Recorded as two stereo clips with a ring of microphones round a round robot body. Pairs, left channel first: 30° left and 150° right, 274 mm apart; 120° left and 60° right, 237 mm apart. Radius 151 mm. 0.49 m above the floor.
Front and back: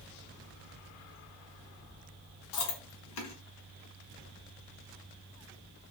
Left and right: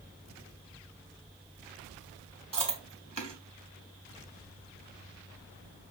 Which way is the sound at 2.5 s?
5° left.